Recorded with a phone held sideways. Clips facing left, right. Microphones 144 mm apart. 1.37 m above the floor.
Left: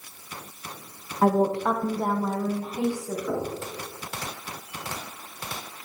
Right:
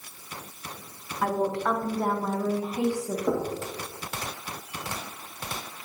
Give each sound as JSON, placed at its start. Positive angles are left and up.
{"t": 1.2, "sound": "a woman speaking", "side_deg": 40, "distance_m": 0.6}
{"t": 3.3, "sound": "knocking", "side_deg": -70, "distance_m": 2.5}